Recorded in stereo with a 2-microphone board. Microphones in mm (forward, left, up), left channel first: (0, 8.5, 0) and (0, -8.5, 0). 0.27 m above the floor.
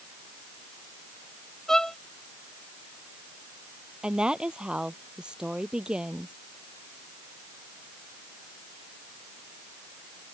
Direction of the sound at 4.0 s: 60° right (ahead or behind).